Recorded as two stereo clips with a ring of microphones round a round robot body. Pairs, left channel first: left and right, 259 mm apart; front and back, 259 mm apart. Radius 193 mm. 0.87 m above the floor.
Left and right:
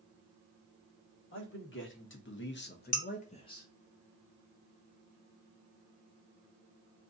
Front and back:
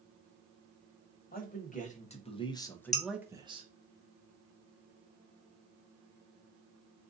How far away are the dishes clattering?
About 1.4 m.